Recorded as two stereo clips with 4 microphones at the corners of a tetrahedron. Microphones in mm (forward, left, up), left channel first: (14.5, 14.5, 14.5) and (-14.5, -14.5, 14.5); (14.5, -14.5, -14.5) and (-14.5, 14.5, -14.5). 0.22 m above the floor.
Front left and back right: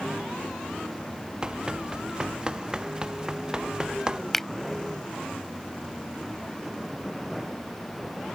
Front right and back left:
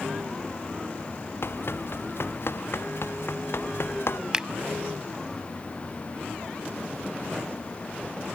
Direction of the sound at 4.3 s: 120° left.